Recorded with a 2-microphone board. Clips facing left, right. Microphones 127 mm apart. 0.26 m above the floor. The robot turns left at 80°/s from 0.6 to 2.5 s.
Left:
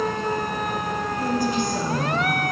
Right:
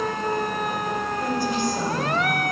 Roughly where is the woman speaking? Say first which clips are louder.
Left 2 dB; behind left.